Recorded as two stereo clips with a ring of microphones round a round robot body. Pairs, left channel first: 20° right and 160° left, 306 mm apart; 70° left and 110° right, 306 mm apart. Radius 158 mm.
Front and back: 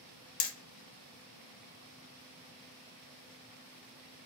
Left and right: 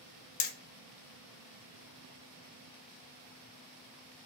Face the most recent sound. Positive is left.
turn(degrees=20)